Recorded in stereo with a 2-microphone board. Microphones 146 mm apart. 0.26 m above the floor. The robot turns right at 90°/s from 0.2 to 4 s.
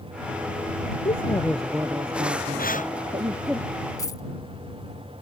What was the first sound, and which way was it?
A woman speaking, 130° left.